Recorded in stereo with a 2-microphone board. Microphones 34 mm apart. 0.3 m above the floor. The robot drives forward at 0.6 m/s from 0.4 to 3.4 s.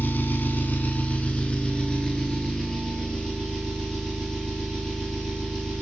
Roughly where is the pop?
I don't hear a pop.